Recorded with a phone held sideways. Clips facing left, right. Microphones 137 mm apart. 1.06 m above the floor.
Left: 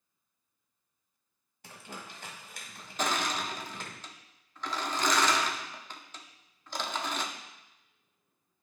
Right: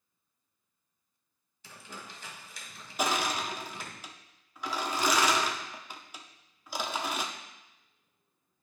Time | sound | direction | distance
1.6 | crumpling | 55° left (ahead or behind) | 1.5 m
3.0 | crushing | 10° right (ahead or behind) | 0.7 m